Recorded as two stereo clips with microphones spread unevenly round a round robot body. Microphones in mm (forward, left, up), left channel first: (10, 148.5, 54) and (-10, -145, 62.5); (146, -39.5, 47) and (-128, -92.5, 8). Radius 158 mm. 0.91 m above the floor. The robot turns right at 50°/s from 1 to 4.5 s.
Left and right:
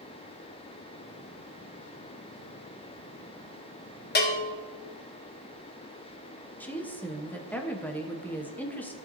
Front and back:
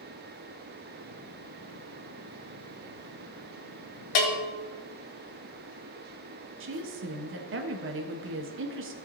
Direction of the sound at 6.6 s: 170° left.